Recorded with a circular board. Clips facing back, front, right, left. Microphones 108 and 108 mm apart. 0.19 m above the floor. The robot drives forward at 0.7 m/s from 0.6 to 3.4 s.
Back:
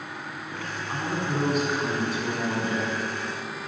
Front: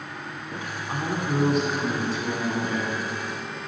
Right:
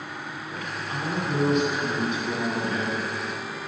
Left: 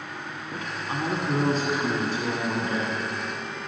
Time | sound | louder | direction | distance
0.5 | a woman speaking | front 1 dB, left 2 dB | 60° left | 1.7 m